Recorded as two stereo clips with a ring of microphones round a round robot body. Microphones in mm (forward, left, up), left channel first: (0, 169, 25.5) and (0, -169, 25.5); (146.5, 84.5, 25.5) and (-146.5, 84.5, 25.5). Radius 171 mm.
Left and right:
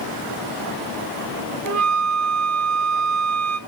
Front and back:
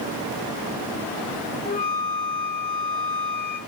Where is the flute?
75° right, 0.6 m.